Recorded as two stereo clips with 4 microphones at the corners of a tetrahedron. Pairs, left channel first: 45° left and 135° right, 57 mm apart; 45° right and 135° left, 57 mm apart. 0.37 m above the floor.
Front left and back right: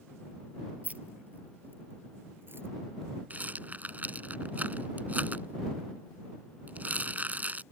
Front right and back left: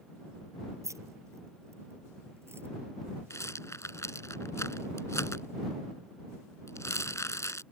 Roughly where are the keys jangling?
Behind.